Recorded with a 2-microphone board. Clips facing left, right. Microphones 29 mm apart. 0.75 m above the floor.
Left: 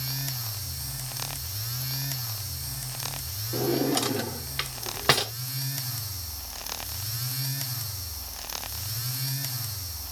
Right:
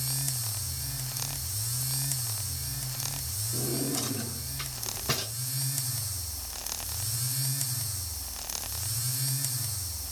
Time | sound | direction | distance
3.5 | a drawer | 65° left (ahead or behind) | 0.5 m